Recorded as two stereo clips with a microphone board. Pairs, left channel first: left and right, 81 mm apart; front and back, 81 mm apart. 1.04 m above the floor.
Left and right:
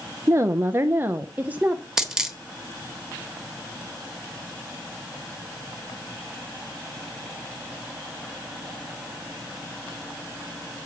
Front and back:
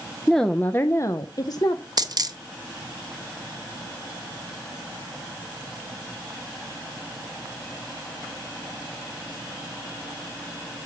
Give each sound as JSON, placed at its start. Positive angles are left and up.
{"t": 0.3, "sound": "a woman speaking", "azimuth_deg": -90, "distance_m": 0.6}
{"t": 2.0, "sound": "a dropped coin", "azimuth_deg": -170, "distance_m": 1.0}